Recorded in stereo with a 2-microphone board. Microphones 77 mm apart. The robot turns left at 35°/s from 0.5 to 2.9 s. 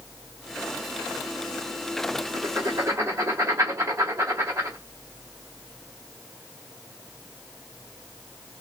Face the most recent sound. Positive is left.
turn(degrees=-40)  # may be behind; listen again after turning